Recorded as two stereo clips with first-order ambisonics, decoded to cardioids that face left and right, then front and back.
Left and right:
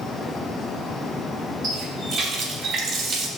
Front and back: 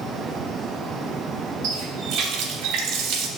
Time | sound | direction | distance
1.6 | a running tap | 140° right | 1.1 m